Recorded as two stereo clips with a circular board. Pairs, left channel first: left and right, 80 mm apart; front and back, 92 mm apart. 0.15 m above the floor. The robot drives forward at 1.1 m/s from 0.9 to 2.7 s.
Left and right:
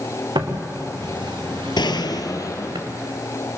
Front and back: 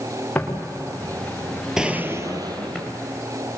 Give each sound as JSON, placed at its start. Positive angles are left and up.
{"t": 0.3, "sound": "footsteps", "azimuth_deg": -75, "distance_m": 3.0}
{"t": 1.8, "sound": "a gunshot", "azimuth_deg": 95, "distance_m": 0.9}